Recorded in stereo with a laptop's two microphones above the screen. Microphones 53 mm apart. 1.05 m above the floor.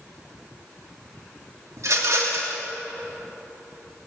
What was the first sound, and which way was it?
A rattle, 75° right (ahead or behind).